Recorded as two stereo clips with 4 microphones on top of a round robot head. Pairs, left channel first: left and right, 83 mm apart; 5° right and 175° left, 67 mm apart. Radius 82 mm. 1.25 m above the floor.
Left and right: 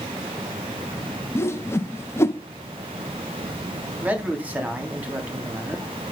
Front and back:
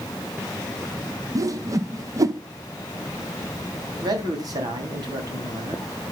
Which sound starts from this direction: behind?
A man speaking, at 4.0 s.